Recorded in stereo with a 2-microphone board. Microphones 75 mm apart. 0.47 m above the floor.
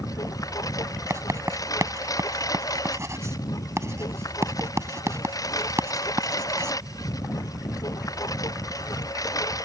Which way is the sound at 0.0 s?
50° left (ahead or behind).